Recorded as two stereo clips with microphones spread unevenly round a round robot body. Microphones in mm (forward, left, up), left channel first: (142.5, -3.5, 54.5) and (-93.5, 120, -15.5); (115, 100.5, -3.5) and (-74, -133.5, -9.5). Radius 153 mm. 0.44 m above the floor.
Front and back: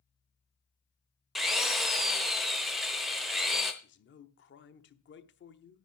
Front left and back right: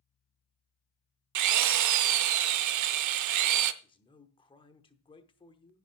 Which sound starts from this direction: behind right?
A drill, at 1.4 s.